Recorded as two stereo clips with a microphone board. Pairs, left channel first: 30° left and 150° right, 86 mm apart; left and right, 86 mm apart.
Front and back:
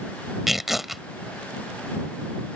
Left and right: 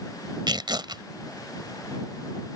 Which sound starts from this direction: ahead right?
Tearing paper, at 0.5 s.